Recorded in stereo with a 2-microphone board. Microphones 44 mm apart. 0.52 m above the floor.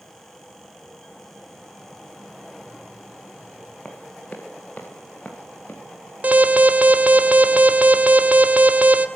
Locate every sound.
3.9 s running footsteps: 35° left (ahead or behind), 5 m; by 5.8 s 40° left (ahead or behind), 8 m
6.2 s an alarm: 35° right (ahead or behind), 2.0 m